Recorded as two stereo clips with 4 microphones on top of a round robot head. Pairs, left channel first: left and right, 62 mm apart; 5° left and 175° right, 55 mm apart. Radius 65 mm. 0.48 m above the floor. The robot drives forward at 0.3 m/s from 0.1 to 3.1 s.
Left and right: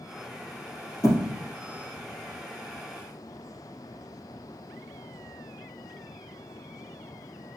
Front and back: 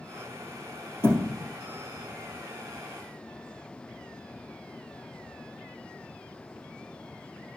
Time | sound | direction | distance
1.0 | a thud | 140° left | 2.5 m